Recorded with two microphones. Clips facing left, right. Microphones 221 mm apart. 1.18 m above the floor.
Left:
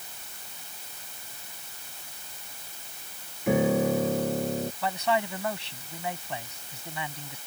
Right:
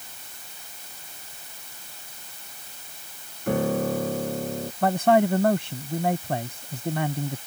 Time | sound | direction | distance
3.5 | a piano | 5° left (ahead or behind) | ?
4.8 | a man speaking | 50° right (ahead or behind) | ?